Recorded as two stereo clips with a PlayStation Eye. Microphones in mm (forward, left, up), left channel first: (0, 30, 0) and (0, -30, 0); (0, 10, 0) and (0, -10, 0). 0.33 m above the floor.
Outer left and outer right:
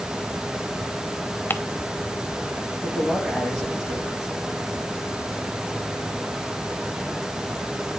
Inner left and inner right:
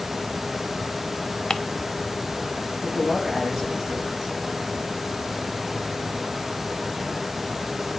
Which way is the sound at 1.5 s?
35° left (ahead or behind).